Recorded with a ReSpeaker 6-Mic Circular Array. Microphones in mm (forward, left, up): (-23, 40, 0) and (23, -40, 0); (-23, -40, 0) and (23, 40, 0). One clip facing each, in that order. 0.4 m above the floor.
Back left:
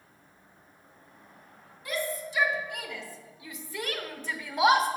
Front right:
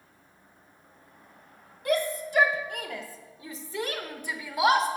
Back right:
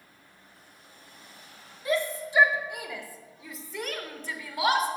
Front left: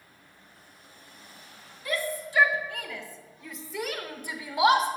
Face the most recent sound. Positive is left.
turn(degrees=35)